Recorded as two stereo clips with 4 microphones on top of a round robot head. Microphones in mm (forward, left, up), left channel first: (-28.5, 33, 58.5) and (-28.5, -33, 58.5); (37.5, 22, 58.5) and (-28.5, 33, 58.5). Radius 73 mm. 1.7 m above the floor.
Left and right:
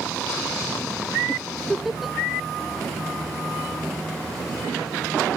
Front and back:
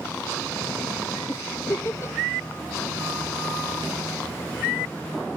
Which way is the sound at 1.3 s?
Straight ahead.